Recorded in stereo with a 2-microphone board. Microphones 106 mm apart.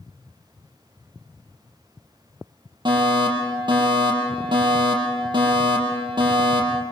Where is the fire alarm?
45° right (ahead or behind), 6.5 m.